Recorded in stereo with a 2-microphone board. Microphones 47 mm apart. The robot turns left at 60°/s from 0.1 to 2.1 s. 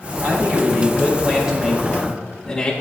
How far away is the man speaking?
About 1.7 m.